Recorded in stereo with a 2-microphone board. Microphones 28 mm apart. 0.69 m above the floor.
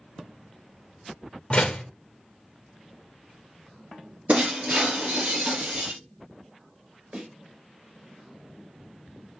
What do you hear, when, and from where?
1.5 s a door slam: 40° left (ahead or behind), 0.9 m
4.3 s breaking glass: 65° right (ahead or behind), 2 m
7.1 s a snare drum: 40° right (ahead or behind), 2 m